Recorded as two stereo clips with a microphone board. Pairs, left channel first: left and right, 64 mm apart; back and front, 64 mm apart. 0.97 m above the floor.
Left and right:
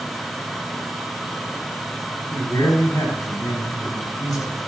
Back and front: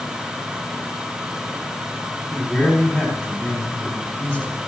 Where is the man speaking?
115° left, 6.5 m.